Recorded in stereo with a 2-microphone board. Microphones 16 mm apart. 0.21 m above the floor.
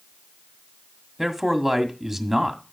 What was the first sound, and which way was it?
A man speaking, 25° right (ahead or behind).